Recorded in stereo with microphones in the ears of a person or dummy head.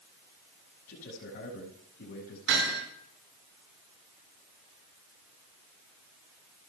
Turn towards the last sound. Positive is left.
turn(degrees=-70)  # may be behind; listen again after turning